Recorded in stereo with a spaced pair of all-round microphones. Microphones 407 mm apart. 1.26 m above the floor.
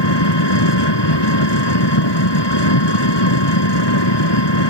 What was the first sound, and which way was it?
An engine running, 80° left.